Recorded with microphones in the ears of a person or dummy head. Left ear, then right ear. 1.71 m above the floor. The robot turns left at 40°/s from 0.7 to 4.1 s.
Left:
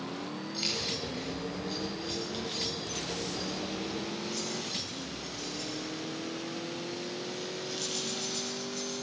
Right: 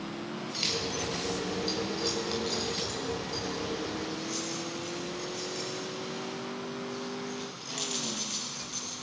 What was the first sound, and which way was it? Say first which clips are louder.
Keys jangling: right 1 dB; 10° right (ahead or behind).